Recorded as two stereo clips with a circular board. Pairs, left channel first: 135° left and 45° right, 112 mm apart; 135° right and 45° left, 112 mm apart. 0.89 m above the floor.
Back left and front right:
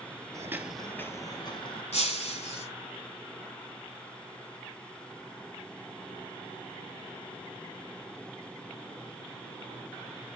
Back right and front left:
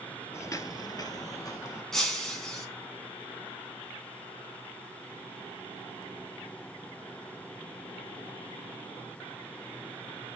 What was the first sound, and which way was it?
Footsteps, 80° right.